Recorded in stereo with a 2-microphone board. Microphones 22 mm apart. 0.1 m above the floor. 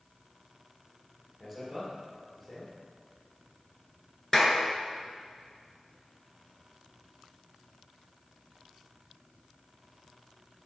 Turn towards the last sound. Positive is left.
turn(degrees=25)  # may be behind; listen again after turning